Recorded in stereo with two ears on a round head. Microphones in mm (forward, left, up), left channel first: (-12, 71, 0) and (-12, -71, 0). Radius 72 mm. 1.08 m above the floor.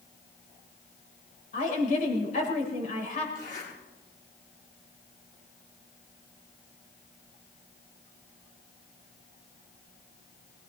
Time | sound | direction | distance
1.5 | a woman speaking | 55° left (ahead or behind) | 4 m
3.4 | a zipper | 60° left (ahead or behind) | 8.5 m